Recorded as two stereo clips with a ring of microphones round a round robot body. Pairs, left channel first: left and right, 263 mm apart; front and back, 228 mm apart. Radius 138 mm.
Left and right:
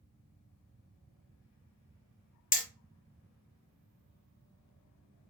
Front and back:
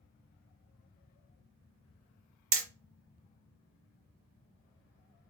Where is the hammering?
150° left, 0.7 m.